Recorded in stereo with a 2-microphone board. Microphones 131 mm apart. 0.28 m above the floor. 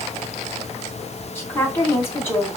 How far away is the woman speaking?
About 2.5 m.